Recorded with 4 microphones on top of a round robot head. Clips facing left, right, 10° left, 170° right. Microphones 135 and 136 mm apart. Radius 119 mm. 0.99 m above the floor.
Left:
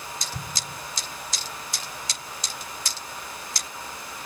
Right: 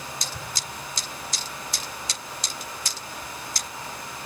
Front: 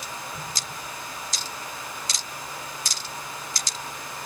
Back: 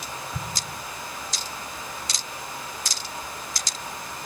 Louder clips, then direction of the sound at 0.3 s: Even, back 2 dB; 150° left.